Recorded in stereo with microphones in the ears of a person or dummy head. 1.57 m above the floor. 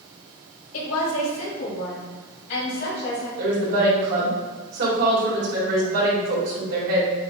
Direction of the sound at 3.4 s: 60° right (ahead or behind).